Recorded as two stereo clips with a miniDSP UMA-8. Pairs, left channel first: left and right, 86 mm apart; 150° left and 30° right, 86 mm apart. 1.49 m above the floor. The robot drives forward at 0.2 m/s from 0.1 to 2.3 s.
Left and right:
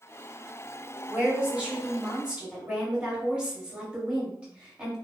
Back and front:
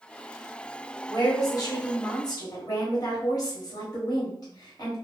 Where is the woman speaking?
165° right, 1.1 m.